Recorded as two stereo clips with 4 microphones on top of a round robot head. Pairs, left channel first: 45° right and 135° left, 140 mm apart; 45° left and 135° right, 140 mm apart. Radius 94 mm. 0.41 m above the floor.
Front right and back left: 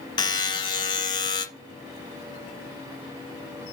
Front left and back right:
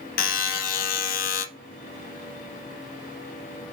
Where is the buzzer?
20° left, 1.4 m.